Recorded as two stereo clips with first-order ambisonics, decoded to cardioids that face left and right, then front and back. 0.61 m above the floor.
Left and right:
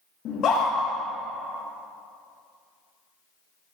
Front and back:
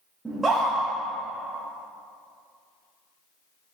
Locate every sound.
0.2 s a scream: 100° left, 0.9 m